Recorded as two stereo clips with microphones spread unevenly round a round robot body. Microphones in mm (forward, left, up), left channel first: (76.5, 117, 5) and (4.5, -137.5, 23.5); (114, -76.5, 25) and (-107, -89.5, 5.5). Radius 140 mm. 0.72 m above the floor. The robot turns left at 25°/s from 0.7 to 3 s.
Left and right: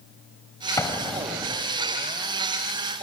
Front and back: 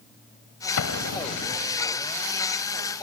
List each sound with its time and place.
0.8 s an explosion: 5° right, 2.5 m; by 1.7 s 30° right, 2.5 m